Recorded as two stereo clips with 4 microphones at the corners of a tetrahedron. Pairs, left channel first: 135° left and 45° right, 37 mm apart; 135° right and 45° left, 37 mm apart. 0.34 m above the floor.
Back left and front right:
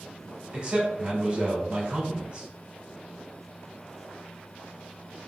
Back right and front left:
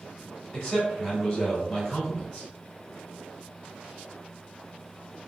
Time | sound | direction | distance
0.5 | a man speaking | 50° right | 1.4 m